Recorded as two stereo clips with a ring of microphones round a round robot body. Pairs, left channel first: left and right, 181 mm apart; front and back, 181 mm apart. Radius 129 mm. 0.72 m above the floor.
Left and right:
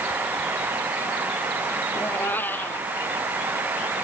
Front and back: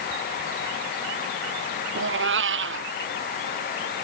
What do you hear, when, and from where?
1.9 s a cat meowing: 175° left